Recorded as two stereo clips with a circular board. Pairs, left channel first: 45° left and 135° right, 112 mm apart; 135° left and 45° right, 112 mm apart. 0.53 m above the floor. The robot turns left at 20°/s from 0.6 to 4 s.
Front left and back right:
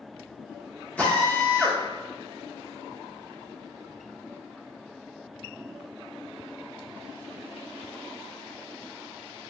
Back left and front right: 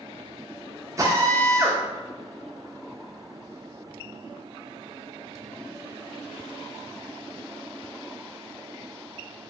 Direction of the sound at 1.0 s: 20° right.